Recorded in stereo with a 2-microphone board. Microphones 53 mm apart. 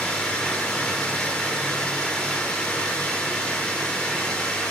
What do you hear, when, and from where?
0.0 s running water: 15° left (ahead or behind), 6.5 m